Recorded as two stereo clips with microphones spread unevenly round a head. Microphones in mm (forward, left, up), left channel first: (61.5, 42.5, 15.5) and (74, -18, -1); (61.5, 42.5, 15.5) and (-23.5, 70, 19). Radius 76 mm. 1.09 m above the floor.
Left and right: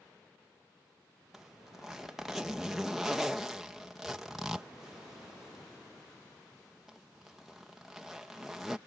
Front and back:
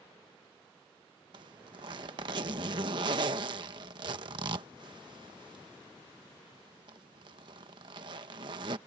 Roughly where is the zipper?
Behind.